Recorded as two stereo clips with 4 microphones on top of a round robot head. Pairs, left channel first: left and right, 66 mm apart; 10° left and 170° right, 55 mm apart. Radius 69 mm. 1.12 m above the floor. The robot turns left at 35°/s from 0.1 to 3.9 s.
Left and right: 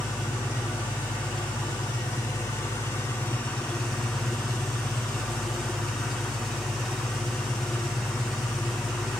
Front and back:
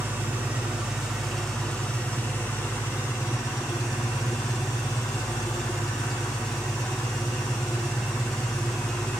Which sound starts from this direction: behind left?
An engine running, at 0.0 s.